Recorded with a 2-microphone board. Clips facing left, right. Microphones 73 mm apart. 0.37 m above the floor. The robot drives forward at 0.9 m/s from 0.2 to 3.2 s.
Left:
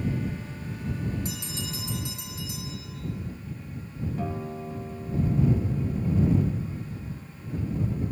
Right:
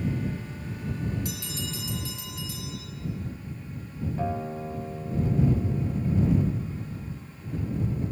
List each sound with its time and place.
1.2 s a bell: 30° left (ahead or behind), 2.5 m; by 3.0 s 20° left (ahead or behind), 4 m
4.2 s a guitar: 30° right (ahead or behind), 0.7 m